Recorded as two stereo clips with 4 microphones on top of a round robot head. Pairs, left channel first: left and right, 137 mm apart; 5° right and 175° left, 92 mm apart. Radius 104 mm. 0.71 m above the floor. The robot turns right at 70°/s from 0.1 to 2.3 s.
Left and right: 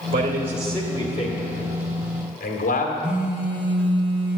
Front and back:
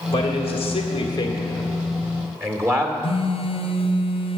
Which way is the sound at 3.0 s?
5° right.